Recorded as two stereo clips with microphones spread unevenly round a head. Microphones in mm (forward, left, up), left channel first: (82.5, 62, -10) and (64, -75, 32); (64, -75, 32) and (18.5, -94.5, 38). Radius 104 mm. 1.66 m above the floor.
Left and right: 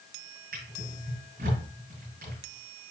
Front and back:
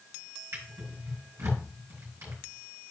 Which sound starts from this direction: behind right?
A drawer, at 0.5 s.